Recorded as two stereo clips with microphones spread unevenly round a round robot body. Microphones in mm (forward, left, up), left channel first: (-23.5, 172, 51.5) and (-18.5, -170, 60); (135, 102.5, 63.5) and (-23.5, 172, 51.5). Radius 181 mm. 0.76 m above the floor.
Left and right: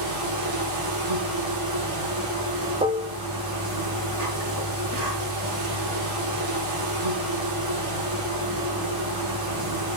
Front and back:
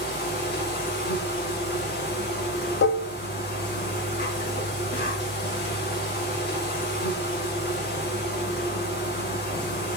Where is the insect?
55° right, 4 m.